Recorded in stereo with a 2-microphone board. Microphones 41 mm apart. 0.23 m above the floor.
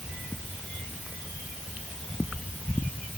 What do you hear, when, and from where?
Only background noise.